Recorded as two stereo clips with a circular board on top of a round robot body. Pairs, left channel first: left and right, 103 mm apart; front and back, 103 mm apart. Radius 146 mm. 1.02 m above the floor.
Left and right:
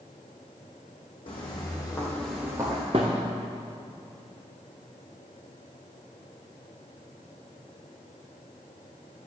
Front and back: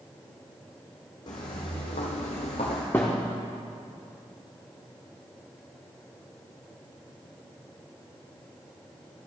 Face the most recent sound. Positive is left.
turn(degrees=-70)